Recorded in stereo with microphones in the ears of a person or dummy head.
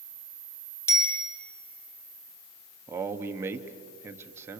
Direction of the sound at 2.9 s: 15° right (ahead or behind).